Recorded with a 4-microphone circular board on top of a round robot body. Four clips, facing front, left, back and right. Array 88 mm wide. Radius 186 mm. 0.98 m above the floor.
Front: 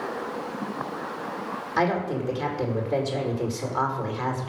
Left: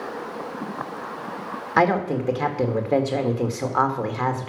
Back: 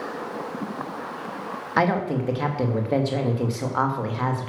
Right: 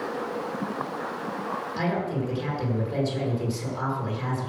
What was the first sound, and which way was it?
A woman speaking, 115° left.